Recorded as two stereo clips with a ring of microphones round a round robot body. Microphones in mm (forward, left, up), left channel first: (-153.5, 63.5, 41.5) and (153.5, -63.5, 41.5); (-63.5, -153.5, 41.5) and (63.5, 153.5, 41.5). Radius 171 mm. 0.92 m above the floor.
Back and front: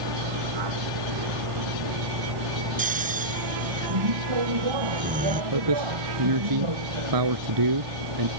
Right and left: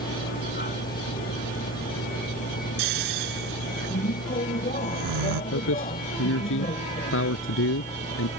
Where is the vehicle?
45° right; by 8.4 s 40° right.